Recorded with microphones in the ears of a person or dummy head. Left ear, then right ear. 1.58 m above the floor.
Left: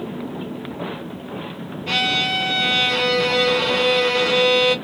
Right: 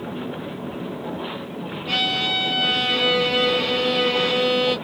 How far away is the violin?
About 2 m.